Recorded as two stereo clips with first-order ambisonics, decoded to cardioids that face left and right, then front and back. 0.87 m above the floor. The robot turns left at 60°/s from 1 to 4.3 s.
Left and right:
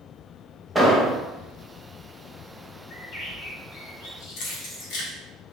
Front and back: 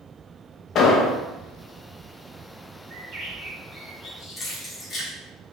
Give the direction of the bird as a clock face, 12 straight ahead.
7 o'clock.